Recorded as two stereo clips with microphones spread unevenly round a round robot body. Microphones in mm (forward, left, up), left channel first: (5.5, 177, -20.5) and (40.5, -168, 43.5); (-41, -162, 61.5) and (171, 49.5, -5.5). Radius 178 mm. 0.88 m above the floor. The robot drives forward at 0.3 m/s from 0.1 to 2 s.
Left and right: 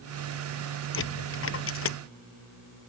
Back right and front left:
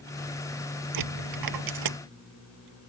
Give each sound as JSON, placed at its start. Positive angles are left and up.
{"t": 0.9, "sound": "a dropped coin", "azimuth_deg": 40}